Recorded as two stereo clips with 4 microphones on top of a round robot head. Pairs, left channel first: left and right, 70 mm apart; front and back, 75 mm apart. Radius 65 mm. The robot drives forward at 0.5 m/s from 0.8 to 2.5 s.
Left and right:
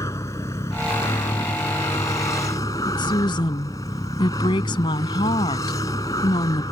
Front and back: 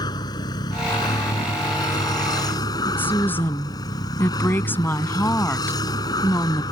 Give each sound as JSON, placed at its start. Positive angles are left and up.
{"t": 0.0, "sound": "a vehicle", "azimuth_deg": 25}
{"t": 2.9, "sound": "a woman speaking", "azimuth_deg": 65}